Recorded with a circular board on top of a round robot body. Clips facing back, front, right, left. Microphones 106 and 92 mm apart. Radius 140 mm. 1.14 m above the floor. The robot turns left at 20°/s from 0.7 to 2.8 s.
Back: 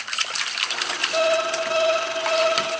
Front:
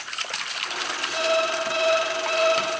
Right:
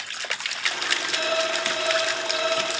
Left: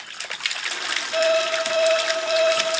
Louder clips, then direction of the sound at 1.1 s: Back 3 dB, left 7 dB; 140° left.